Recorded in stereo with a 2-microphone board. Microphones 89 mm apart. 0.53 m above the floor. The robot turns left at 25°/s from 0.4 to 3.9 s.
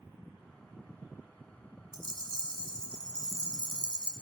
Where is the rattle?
50° right, 1.0 m; by 4.1 s 100° right, 1.0 m.